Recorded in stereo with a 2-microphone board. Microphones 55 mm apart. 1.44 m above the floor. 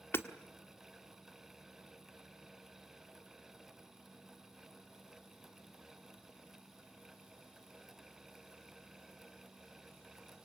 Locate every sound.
0.1 s hammering: 45° left (ahead or behind), 1.3 m